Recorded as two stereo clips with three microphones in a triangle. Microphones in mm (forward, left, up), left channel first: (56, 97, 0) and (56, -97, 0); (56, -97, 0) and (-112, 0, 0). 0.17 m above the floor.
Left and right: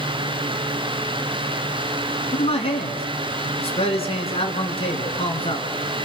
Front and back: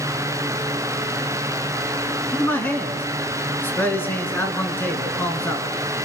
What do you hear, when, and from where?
2.3 s a man speaking: 45° left, 2 m